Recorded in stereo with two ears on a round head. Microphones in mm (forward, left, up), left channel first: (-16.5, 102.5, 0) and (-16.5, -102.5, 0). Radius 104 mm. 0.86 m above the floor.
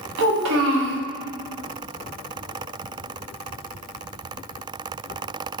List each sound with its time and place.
0.2 s a child speaking: 65° right (ahead or behind), 1.2 m